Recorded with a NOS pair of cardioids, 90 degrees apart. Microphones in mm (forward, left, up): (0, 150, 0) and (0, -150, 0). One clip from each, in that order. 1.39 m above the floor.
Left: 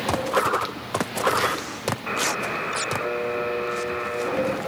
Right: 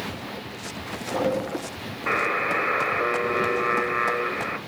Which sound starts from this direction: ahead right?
A buzzer, at 2.1 s.